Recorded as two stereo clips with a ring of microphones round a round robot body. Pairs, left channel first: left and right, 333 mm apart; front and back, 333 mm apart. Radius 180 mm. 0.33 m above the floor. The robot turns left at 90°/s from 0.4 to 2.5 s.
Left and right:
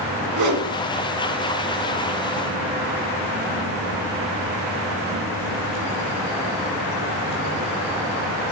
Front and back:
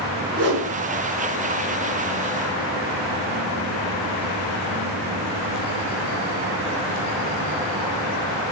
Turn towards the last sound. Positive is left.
turn(degrees=45)